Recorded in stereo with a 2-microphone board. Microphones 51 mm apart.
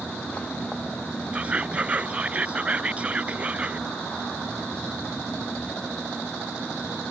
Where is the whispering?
25° right (ahead or behind).